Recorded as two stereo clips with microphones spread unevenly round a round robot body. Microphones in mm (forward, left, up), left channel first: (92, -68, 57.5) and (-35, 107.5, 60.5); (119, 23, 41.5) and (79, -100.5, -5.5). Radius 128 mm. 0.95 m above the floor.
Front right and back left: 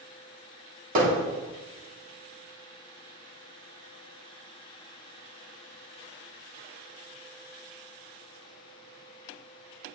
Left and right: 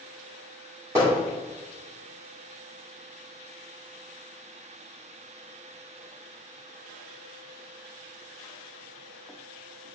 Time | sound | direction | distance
0.9 | hammering | straight behind | 2 m